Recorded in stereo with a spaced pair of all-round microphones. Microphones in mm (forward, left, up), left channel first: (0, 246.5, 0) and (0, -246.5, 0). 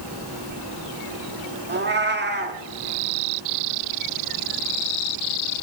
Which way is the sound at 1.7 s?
20° right (ahead or behind).